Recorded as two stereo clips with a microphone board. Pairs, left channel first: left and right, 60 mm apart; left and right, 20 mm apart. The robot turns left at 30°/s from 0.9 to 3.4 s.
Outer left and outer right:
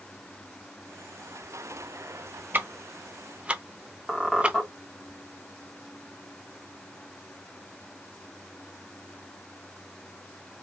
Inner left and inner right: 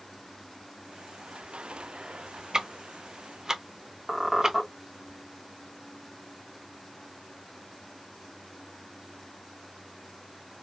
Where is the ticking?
30° right (ahead or behind), 0.6 m; by 4.6 s 20° right (ahead or behind), 0.6 m.